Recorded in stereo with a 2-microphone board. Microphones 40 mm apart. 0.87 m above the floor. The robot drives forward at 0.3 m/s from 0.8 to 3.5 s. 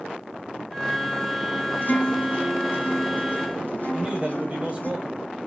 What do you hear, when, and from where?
1.8 s a guitar: 55° left (ahead or behind), 1.6 m; by 4.9 s 45° left (ahead or behind), 1.8 m
3.9 s a man speaking: 25° right (ahead or behind), 4 m